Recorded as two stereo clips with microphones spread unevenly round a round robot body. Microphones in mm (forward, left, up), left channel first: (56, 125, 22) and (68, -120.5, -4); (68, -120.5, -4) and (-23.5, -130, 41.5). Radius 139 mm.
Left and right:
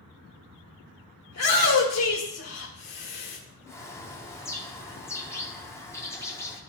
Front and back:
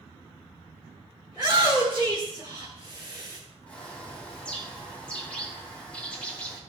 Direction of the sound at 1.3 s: 80° left.